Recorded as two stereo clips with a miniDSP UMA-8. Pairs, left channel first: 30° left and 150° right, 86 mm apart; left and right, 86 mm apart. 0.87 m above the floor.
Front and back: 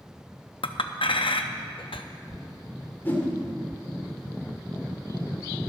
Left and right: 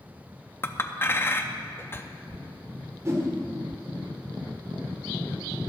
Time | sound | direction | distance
0.6 | a clink | 25° left | 0.6 m
3.0 | a whoosh | 35° right | 1.9 m